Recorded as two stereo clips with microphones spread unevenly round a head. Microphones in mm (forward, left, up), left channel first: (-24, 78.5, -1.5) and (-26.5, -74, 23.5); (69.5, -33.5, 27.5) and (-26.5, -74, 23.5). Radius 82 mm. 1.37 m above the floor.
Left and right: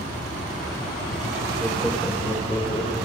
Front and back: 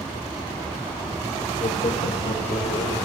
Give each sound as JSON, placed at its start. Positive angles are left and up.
{"t": 1.6, "sound": "laughter", "azimuth_deg": -5, "distance_m": 0.7}